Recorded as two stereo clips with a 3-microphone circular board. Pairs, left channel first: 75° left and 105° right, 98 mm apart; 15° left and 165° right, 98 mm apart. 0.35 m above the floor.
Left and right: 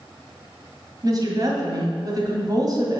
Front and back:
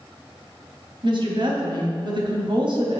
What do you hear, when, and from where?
1.0 s a woman speaking: 145° right, 1.7 m